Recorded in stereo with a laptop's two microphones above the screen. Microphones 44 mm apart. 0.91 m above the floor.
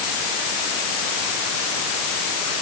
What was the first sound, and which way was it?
Only background noise.